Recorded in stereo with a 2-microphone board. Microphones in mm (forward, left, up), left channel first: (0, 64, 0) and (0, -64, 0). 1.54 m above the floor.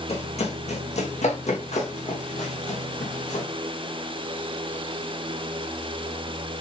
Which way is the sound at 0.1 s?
60° left (ahead or behind).